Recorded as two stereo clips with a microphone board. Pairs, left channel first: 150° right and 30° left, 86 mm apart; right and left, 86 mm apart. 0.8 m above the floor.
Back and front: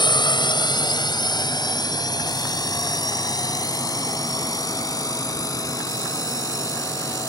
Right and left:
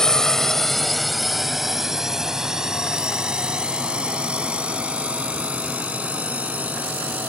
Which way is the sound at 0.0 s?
175° right.